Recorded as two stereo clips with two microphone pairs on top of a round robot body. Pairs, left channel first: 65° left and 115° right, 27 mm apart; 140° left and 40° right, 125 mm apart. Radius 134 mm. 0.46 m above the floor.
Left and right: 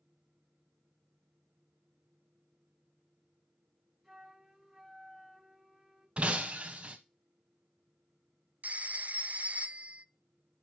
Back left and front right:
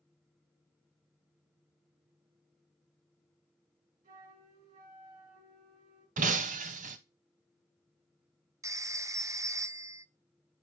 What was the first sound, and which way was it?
A flute, 30° right.